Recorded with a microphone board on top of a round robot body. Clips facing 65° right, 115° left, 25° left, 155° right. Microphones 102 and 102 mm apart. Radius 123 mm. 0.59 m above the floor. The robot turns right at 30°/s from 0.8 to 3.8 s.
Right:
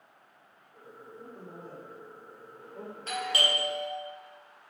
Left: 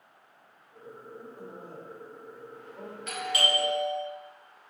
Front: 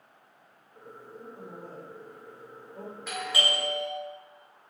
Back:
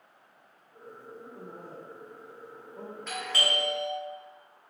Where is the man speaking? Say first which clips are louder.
Even, front 3 dB; 115° right, 1.8 m; by 3.0 s 60° right, 1.8 m.